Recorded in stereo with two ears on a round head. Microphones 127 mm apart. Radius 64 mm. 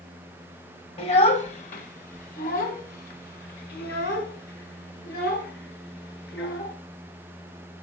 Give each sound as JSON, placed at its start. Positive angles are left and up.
{"t": 1.0, "sound": "a child speaking", "side_deg": 40, "distance_m": 1.3}